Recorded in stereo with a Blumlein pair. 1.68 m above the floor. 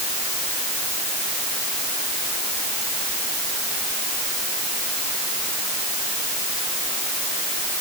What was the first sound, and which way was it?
Only background noise.